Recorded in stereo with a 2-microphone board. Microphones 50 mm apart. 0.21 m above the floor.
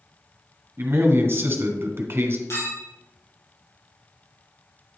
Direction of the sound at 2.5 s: 65° left (ahead or behind).